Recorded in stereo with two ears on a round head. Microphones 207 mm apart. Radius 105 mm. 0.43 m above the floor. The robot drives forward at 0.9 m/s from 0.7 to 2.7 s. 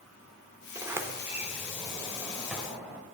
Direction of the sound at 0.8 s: 10° right (ahead or behind).